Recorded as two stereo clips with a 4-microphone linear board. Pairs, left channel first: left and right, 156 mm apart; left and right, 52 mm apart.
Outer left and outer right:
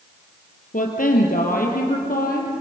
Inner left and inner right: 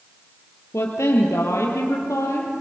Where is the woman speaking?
60° left (ahead or behind), 3.5 m; by 2.5 s 70° left (ahead or behind), 4.5 m.